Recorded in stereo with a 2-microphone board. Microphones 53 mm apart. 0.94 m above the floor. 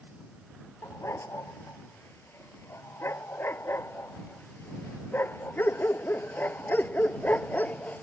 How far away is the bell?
No bell in this recording.